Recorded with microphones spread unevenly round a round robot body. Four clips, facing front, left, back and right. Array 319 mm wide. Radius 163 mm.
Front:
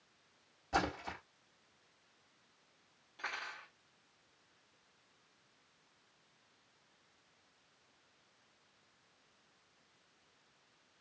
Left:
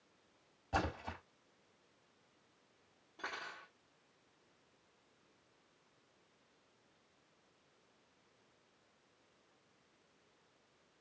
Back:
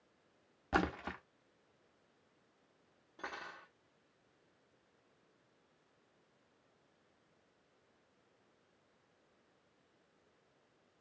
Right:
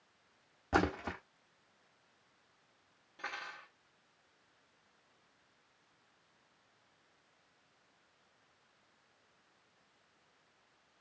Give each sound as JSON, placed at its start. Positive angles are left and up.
{"t": 0.7, "sound": "a splash", "azimuth_deg": -120, "distance_m": 1.1}
{"t": 3.2, "sound": "cutlery clinking", "azimuth_deg": 165, "distance_m": 0.7}